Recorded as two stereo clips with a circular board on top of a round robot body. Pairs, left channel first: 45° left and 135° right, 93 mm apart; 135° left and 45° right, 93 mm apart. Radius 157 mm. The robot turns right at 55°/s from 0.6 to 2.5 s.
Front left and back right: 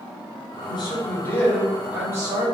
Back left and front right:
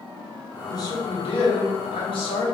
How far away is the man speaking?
About 3 m.